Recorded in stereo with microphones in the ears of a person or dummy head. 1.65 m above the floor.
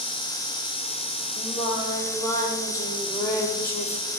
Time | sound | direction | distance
1.4 | singing | 20° left (ahead or behind) | 0.7 m